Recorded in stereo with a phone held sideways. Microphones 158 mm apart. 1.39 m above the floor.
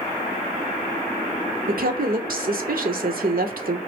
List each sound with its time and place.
1.7 s a woman speaking: 65° right (ahead or behind), 0.8 m